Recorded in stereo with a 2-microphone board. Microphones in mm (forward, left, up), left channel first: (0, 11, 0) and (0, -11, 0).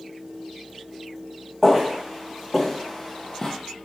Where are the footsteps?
10° right (ahead or behind), 1.3 m; by 3.5 s 30° left (ahead or behind), 0.5 m.